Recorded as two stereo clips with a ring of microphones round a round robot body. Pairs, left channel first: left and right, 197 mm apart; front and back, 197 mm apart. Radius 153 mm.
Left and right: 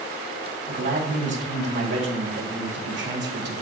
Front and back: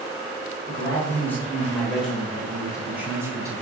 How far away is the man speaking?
About 4 m.